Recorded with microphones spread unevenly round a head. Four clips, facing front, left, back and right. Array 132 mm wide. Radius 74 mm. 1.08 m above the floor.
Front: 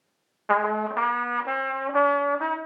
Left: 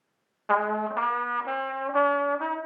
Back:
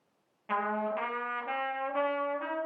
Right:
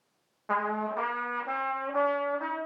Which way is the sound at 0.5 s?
25° left.